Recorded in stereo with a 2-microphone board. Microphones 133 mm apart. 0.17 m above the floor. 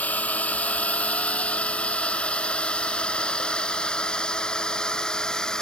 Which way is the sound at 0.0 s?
10° left (ahead or behind).